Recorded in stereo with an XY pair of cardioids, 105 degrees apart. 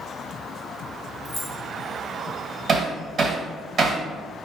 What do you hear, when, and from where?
1.2 s keys jangling: 10° left, 1.1 m
2.7 s hammering: 45° right, 1.3 m